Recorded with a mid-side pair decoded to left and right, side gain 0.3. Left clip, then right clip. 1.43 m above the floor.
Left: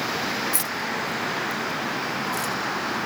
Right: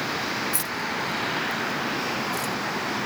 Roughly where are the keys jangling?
Ahead left.